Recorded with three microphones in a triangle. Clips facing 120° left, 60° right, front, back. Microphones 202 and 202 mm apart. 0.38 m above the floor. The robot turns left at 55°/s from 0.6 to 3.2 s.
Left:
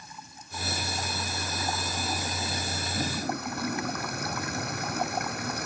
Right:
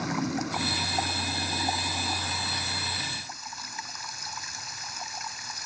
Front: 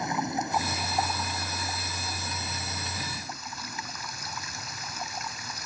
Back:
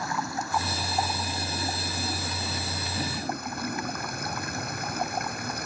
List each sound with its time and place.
0.0 s running water: 70° right; by 5.7 s 145° left